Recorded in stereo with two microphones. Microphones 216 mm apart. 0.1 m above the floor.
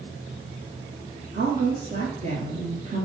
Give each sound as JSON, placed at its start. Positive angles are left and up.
{"t": 1.3, "sound": "a woman speaking", "side_deg": -35, "distance_m": 1.9}